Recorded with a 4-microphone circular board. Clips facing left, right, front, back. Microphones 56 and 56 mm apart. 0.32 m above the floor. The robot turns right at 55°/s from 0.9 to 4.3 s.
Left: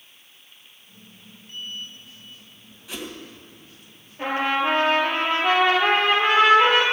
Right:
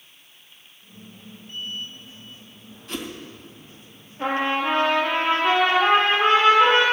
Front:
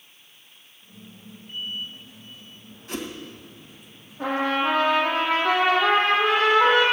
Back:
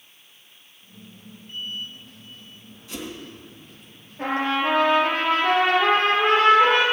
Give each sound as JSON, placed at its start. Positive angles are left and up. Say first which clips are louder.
{"t": 2.9, "sound": "a whoosh", "louder": "right 2 dB, front 2 dB", "azimuth_deg": 10, "distance_m": 2.5}
{"t": 4.2, "sound": "a trumpet", "louder": "even, even", "azimuth_deg": 150, "distance_m": 4.0}